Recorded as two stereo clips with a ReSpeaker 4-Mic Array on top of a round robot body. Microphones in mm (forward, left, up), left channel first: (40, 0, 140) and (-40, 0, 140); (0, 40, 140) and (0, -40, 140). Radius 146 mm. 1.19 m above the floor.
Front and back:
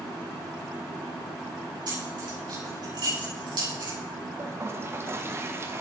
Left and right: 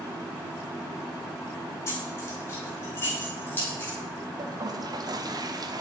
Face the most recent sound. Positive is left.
turn(degrees=-125)